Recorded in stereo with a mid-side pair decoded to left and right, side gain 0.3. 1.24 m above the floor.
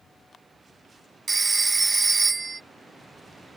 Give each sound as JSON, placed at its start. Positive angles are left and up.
{"t": 1.3, "sound": "a phone ringing", "azimuth_deg": -45}